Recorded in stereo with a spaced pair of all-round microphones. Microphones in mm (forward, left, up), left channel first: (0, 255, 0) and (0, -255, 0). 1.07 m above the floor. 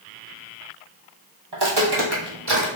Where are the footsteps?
50° right (ahead or behind), 1.7 m; by 2.6 s 45° right (ahead or behind), 1.9 m.